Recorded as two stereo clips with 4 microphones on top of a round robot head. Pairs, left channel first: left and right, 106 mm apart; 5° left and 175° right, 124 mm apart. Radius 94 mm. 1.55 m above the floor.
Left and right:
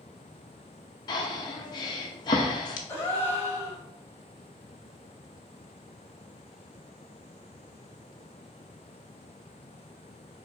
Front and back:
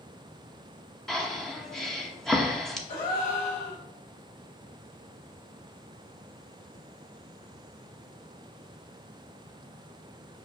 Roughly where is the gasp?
Ahead.